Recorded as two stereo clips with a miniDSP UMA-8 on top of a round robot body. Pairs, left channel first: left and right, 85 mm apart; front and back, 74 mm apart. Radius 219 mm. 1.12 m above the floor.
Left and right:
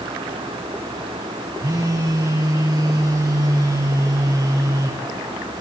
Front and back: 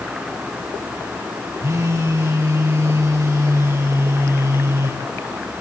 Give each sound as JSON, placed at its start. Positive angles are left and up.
{"t": 1.6, "sound": "a phone buzzing", "azimuth_deg": -135, "distance_m": 5.0}